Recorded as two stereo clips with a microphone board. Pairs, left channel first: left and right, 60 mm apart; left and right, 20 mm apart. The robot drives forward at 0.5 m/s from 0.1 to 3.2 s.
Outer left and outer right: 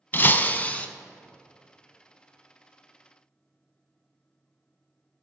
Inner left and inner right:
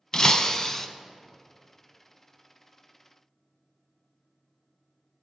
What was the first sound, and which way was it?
Breaking glass, 35° left (ahead or behind).